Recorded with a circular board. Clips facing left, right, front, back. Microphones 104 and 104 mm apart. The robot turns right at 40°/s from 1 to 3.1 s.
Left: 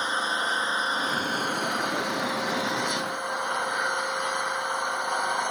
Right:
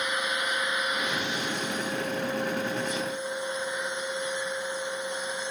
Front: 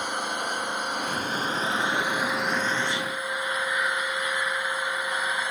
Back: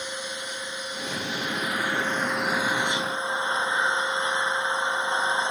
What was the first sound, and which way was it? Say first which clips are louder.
An engine running: left 2 dB, front 5 dB; 30° left.